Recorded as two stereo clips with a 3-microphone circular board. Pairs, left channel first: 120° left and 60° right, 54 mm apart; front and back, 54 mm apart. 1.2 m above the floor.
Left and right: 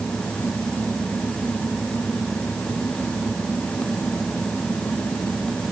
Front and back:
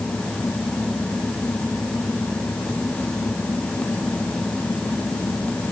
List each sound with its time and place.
Only background noise.